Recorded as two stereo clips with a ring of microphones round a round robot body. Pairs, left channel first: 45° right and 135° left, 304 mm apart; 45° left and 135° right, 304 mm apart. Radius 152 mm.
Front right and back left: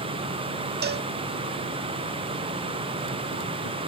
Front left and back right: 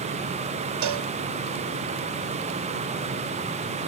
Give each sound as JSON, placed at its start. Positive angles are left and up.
{"t": 0.8, "sound": "a cowbell", "azimuth_deg": -165}